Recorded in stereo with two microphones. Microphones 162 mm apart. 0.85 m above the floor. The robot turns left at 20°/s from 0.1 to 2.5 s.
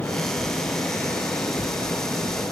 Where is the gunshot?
No gunshot in this recording.